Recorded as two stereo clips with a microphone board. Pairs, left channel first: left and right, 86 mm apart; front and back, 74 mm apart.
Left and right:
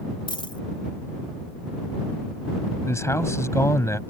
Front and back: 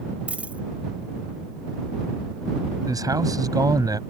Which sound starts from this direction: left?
A dropped coin, at 0.3 s.